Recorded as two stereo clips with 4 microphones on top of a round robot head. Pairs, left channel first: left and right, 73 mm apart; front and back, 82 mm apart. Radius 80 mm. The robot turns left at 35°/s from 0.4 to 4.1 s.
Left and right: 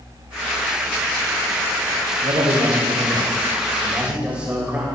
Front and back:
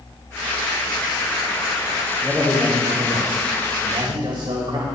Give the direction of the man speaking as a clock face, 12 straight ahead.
3 o'clock.